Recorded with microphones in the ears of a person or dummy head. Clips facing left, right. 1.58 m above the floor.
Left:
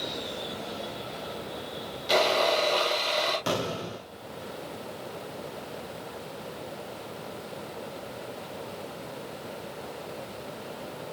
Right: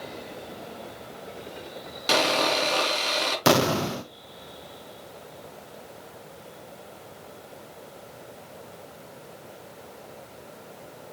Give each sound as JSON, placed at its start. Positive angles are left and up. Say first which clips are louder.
{"t": 2.1, "sound": "sawing", "louder": "even", "side_deg": -85, "distance_m": 3.0}
{"t": 3.5, "sound": "an explosion", "louder": "right 8 dB", "side_deg": -75, "distance_m": 0.6}